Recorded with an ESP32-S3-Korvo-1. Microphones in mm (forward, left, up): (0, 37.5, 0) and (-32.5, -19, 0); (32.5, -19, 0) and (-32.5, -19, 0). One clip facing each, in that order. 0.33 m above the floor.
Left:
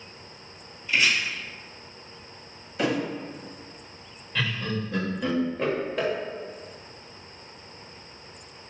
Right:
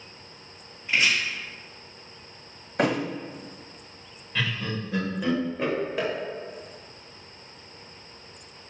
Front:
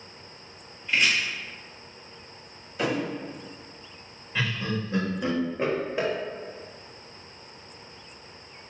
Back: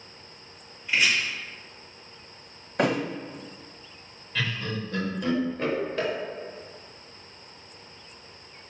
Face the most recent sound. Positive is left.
turn(degrees=-35)